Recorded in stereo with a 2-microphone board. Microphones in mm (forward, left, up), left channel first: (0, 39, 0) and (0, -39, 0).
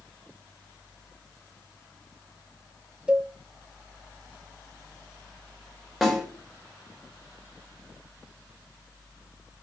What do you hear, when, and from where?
3.1 s a cowbell: 15° right (ahead or behind), 0.6 m
6.0 s a snare drum: 5° right (ahead or behind), 2.0 m